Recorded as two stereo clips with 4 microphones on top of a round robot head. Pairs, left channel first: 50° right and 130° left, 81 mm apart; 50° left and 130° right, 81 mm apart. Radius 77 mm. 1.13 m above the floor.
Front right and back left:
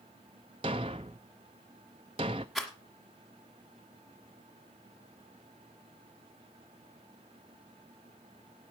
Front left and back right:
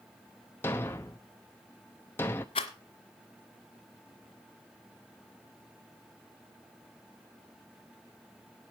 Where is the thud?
115° left, 0.5 m.